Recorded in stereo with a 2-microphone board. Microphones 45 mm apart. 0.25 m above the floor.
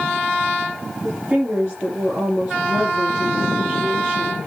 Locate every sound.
1.0 s a woman speaking: 25° right (ahead or behind), 5.5 m